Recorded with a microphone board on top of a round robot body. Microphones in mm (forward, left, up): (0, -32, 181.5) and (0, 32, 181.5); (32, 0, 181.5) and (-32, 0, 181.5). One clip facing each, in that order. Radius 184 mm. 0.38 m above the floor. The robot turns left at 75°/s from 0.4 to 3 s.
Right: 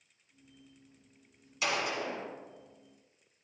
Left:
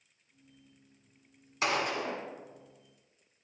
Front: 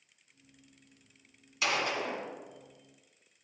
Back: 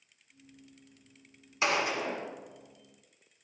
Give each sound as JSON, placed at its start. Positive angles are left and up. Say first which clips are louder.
{"t": 1.6, "sound": "a gunshot", "louder": "left 2 dB, back 2 dB", "azimuth_deg": 125, "distance_m": 1.3}